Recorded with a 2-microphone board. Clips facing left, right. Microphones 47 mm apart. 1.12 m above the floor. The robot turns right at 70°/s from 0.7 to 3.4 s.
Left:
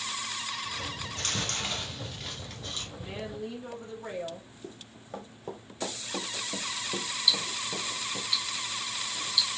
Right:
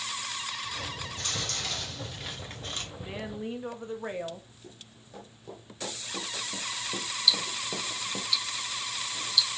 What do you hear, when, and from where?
1.0 s chewing: 105° left, 2 m; by 2.9 s 130° right, 2 m
3.0 s a woman speaking: straight behind, 1.6 m; by 4.5 s 150° right, 1.6 m
4.6 s running footsteps: 50° left (ahead or behind), 3 m; by 8.3 s 40° right (ahead or behind), 1.5 m
7.3 s ticking: 20° left (ahead or behind), 1.6 m